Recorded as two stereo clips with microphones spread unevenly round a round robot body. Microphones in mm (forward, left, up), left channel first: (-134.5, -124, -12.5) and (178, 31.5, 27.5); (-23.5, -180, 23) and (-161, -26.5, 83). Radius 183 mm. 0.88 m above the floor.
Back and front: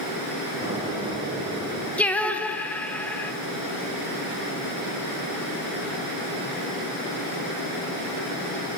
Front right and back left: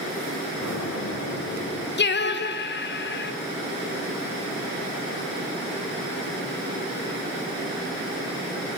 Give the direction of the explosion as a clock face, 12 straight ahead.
2 o'clock.